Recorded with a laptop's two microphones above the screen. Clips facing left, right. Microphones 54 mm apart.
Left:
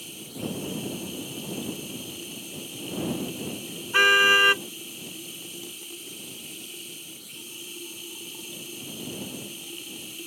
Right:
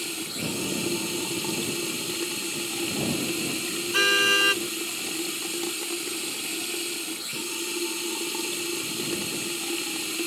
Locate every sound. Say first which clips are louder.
0.0 s running water: right 3 dB; 80° right
3.9 s a car horn: left 4 dB; 20° left (ahead or behind)